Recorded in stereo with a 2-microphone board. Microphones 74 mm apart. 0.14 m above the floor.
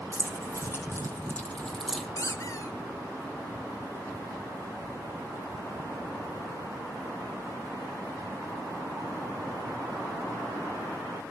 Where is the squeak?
45° left (ahead or behind), 1.3 m.